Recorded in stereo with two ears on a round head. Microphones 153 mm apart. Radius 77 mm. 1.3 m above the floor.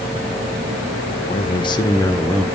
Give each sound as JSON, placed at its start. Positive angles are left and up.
{"t": 1.3, "sound": "a man speaking", "side_deg": 35, "distance_m": 1.5}